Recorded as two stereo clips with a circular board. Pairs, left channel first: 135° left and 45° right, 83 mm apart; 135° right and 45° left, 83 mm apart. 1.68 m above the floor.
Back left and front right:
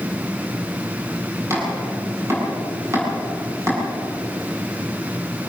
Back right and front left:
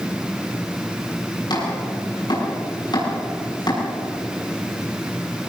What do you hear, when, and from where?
1.5 s chopping: 100° right, 7.5 m